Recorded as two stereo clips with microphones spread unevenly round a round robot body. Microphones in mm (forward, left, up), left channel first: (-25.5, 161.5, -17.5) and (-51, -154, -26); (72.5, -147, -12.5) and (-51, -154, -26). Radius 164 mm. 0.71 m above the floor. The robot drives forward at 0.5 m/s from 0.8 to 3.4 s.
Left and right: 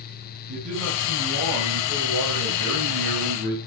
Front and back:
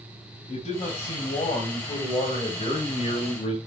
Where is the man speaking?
30° right, 5 m; by 3.6 s 35° right, 4 m.